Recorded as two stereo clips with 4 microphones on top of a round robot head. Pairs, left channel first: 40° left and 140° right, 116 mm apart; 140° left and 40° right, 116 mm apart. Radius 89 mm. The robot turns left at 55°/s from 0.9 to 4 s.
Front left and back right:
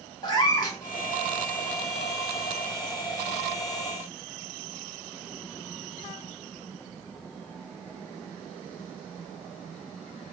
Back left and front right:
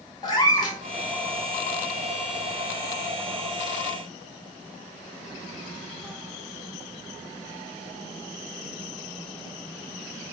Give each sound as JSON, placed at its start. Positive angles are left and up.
{"t": 0.2, "sound": "a cat meowing", "azimuth_deg": 90, "distance_m": 1.1}